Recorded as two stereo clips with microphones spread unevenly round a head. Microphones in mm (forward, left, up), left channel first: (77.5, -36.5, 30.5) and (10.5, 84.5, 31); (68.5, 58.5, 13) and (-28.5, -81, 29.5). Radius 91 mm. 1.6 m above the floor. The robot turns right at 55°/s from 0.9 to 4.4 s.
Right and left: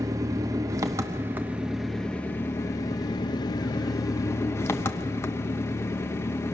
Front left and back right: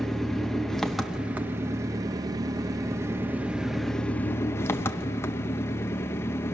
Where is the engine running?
155° left, 0.8 m; by 6.5 s 15° right, 0.8 m.